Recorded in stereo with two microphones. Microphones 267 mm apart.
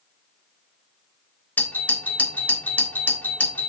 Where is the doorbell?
5° left (ahead or behind), 1.3 m.